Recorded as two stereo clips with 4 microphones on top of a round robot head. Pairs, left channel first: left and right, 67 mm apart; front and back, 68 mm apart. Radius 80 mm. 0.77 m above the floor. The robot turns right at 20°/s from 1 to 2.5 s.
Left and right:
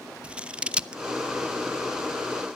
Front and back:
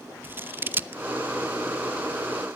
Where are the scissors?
150° right, 1.0 m.